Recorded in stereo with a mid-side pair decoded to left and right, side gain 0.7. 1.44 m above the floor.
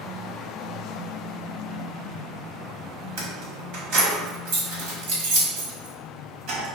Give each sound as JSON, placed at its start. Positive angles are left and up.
{"t": 3.2, "sound": "keys jangling", "azimuth_deg": -65, "distance_m": 1.4}